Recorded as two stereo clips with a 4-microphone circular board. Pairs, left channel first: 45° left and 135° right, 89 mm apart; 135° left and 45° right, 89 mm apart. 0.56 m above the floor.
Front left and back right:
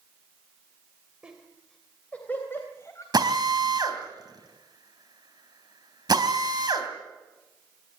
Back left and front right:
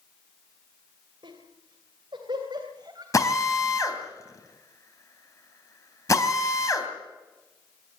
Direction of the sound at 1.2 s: 55° right.